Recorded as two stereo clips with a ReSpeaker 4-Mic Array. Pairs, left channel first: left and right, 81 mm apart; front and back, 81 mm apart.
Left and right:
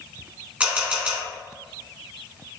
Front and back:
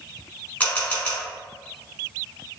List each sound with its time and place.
0.6 s a camera shutter: 45° right, 1.4 m